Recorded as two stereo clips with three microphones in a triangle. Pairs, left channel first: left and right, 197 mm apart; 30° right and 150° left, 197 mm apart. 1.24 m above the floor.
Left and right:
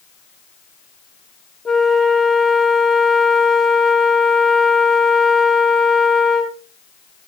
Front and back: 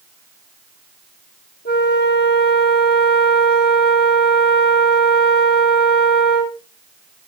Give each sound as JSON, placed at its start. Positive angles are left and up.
{"t": 1.6, "sound": "a flute", "azimuth_deg": 0, "distance_m": 1.3}